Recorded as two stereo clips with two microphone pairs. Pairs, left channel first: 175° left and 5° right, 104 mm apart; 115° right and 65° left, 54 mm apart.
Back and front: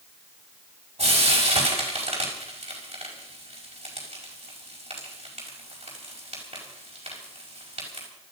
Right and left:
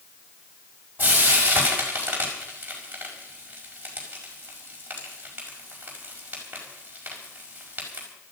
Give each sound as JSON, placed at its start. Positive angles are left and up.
{"t": 1.0, "sound": "frying", "azimuth_deg": 5, "distance_m": 5.0}